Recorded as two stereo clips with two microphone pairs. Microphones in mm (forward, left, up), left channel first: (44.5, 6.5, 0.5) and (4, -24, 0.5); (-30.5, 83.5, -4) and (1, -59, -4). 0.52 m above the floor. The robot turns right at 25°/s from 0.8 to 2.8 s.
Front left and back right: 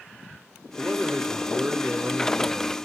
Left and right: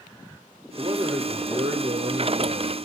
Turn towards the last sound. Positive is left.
turn(degrees=-60)